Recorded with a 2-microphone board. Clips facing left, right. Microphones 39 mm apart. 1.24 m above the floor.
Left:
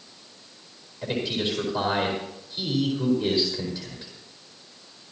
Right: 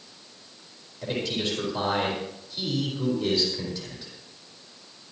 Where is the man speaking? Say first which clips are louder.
Left 1 dB; 5° left (ahead or behind), 4.5 m.